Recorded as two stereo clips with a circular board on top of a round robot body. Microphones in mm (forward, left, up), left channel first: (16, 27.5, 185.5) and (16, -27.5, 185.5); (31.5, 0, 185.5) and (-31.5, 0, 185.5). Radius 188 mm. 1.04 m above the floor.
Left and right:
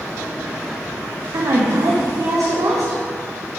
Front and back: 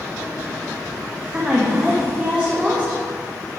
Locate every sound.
1.3 s a woman speaking: 105° right, 1.6 m